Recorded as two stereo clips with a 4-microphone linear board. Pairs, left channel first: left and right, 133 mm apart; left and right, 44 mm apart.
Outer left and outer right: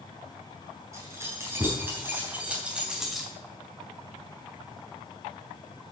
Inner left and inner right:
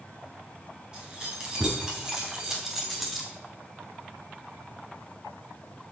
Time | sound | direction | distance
0.9 | keys jangling | 20° right (ahead or behind) | 4.5 m